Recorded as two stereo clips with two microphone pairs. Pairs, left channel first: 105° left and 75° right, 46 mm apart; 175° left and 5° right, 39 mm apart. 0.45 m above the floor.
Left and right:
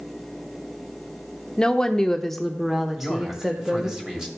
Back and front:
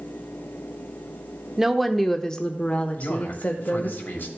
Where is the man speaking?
150° right, 2 m.